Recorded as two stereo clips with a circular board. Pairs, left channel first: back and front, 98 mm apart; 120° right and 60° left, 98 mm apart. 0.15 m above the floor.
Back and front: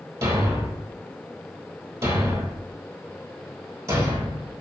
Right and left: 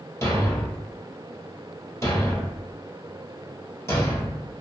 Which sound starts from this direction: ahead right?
A thud, at 0.2 s.